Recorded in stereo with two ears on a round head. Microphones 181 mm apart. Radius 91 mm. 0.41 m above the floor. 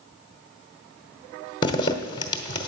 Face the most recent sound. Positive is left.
turn(degrees=25)  # may be behind; listen again after turning